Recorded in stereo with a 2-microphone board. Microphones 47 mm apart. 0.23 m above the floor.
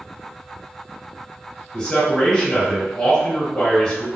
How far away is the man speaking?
About 1.2 m.